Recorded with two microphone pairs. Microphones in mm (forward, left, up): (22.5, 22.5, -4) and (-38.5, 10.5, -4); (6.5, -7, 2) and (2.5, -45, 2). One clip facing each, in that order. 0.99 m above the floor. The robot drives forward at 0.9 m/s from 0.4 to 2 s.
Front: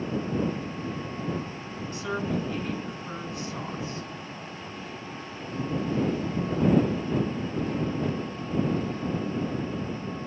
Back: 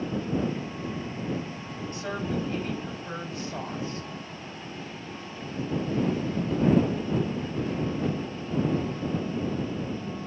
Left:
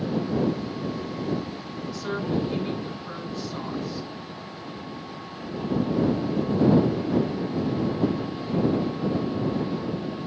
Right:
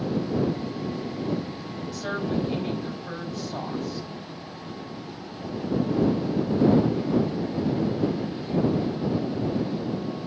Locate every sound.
1.9 s a woman speaking: 125° right, 5 m